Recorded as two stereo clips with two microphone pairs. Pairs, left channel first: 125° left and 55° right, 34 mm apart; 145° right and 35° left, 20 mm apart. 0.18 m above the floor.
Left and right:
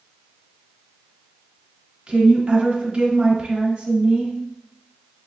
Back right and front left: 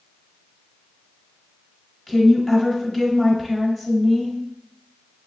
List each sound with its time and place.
2.1 s a woman speaking: 75° right, 1.2 m